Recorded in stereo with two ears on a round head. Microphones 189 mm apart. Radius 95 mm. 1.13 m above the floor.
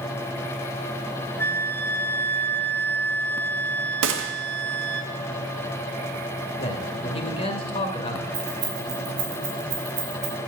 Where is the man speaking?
25° left (ahead or behind), 2.5 m.